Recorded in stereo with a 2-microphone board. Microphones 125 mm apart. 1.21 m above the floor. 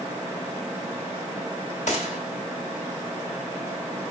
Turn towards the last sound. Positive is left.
turn(degrees=65)  # may be behind; listen again after turning